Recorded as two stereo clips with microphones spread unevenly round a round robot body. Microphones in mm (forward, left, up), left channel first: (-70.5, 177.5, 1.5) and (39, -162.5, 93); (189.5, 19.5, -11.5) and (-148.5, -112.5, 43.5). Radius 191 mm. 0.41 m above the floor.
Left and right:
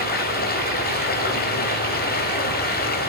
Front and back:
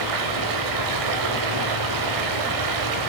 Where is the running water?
160° left, 1.9 m.